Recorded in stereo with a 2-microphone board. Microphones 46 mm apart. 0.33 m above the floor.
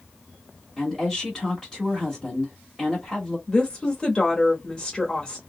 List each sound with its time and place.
0.8 s a woman speaking: 5° left (ahead or behind), 1.5 m
3.5 s a woman speaking: 20° left (ahead or behind), 0.9 m